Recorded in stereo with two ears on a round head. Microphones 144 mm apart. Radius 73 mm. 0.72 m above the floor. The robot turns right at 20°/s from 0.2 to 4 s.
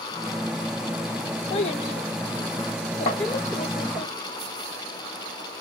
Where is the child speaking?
135° left, 1.3 m; by 4.1 s 175° right, 1.3 m.